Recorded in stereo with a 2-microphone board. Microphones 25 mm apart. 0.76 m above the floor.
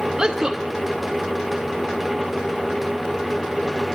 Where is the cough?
No cough in this recording.